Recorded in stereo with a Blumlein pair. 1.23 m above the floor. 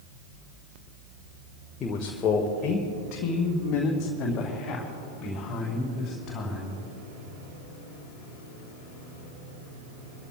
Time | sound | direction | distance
1.8 | a man speaking | 20° left | 1.3 m